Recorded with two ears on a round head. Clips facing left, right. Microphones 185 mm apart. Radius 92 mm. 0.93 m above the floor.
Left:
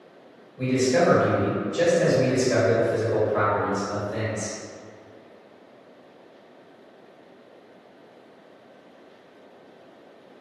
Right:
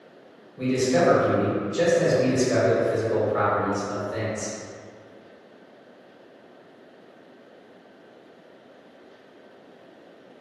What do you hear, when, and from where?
0.6 s a man speaking: 20° right (ahead or behind), 1.3 m